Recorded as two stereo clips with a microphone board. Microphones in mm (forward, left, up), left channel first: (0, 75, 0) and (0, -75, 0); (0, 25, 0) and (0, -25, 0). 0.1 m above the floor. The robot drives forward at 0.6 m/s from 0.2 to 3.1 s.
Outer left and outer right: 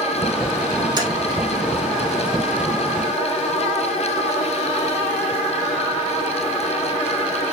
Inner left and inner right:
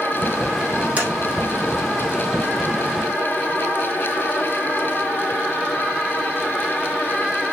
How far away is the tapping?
About 4 m.